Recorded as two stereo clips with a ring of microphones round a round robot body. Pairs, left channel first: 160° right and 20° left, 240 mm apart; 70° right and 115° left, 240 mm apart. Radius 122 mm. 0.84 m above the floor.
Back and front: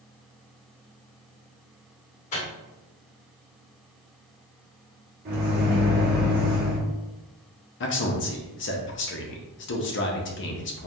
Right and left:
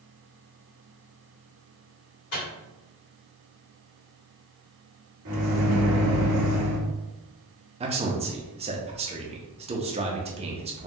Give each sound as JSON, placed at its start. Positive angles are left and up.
{"t": 2.3, "sound": "a microwave", "azimuth_deg": -95, "distance_m": 1.8}
{"t": 5.2, "sound": "a microwave", "azimuth_deg": 75, "distance_m": 1.0}
{"t": 7.8, "sound": "a man speaking", "azimuth_deg": 175, "distance_m": 0.7}